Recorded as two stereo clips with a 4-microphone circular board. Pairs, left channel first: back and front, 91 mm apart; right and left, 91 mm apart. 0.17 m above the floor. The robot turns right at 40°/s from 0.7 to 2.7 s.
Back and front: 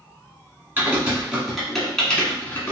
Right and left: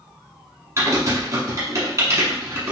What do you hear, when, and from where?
0.8 s typing on a keyboard: 55° left, 1.2 m; by 2.7 s 135° left, 1.2 m